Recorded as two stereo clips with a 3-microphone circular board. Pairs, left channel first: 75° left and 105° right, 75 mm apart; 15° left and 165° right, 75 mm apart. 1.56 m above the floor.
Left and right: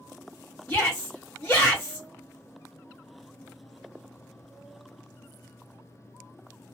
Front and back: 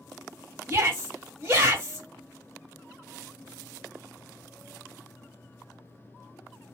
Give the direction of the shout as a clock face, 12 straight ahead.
7 o'clock.